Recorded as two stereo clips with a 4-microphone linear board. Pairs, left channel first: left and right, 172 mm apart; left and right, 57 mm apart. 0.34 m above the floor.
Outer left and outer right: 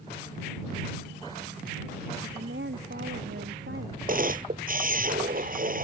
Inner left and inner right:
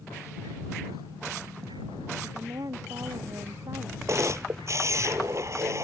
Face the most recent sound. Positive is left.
turn(degrees=-50)  # may be behind; listen again after turning